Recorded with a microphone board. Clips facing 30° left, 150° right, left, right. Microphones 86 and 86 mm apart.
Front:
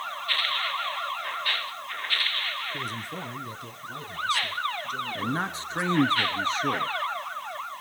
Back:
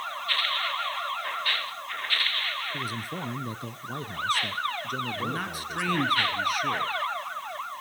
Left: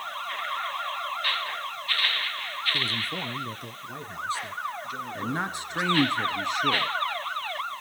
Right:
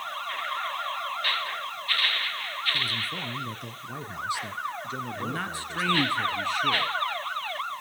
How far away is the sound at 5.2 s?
About 1.3 m.